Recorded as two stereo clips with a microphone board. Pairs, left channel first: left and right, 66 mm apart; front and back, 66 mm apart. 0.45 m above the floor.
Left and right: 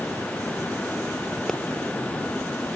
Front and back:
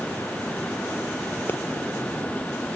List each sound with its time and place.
1.5 s a pop: 10° left, 1.5 m